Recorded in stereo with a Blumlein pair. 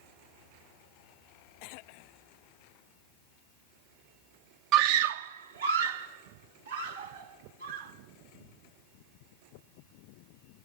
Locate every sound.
4.7 s a scream: 35° right, 0.5 m; by 7.9 s 75° right, 5.5 m